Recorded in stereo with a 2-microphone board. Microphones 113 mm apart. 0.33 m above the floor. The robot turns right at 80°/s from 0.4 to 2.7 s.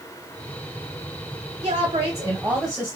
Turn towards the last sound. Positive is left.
turn(degrees=-5)